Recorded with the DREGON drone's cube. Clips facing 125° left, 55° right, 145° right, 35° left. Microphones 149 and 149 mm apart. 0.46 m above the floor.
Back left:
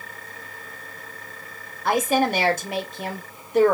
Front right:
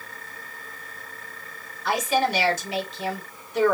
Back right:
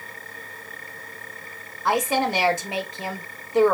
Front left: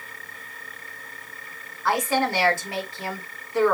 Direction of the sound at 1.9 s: 145° left.